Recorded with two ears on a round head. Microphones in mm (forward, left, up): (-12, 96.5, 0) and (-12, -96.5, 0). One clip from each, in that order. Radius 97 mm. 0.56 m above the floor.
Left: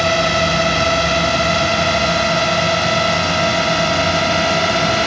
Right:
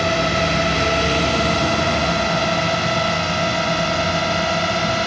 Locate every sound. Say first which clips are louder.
0.0 s a drone: left 3 dB; 20° left (ahead or behind); by 5.1 s 15° left (ahead or behind)